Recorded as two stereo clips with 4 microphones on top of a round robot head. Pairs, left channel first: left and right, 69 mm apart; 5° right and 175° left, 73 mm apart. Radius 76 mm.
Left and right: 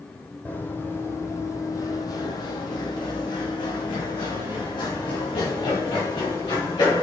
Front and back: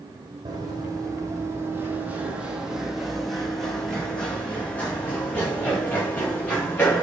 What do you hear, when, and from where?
0.5 s running footsteps: 155° left, 1.8 m; by 7.0 s 60° left, 4.5 m